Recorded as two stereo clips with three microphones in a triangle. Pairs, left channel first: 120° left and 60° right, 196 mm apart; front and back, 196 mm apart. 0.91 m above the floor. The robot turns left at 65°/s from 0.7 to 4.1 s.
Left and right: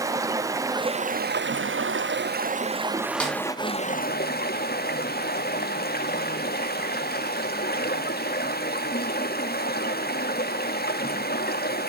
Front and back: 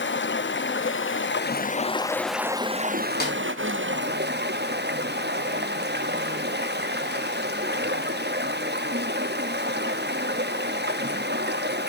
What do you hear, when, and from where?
0.0 s running water: 15° left, 0.8 m; by 11.9 s 155° left, 0.8 m
3.2 s a snare drum: 35° left, 3 m; by 3.4 s 25° left, 3 m